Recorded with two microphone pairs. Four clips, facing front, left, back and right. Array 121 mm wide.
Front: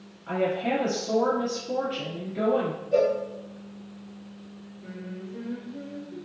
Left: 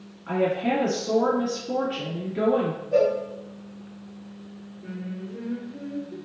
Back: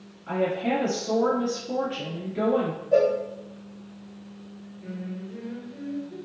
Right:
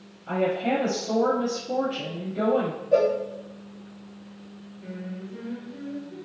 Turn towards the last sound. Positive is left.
turn(degrees=-130)